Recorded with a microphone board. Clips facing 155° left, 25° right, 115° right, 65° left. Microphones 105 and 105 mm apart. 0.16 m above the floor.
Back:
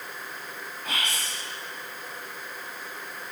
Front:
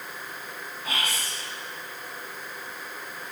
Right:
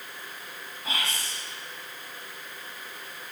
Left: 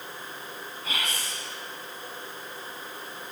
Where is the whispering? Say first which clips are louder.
Front 1 dB, right 1 dB; 100° right, 1.2 m.